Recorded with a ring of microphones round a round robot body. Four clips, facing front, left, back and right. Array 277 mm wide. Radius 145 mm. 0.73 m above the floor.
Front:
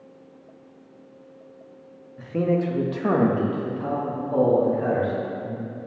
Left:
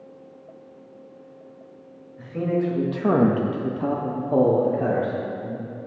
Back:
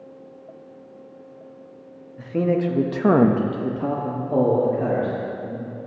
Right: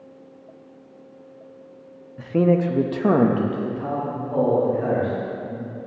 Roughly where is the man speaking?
Right.